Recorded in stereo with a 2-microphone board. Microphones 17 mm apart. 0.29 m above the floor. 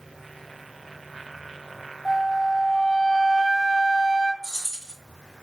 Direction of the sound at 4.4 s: 5° left (ahead or behind).